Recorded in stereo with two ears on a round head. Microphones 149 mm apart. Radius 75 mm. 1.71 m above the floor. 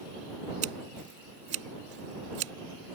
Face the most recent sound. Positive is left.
turn(degrees=-75)  # may be behind; listen again after turning